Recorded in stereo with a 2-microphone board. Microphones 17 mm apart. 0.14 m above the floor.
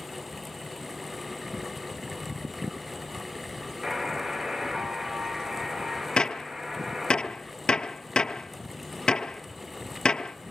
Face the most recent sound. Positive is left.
turn(degrees=60)  # may be behind; listen again after turning